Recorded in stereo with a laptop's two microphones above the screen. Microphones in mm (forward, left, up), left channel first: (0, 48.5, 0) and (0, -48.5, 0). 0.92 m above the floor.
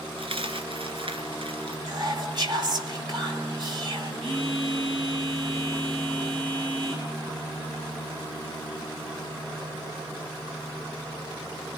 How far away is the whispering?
About 3 m.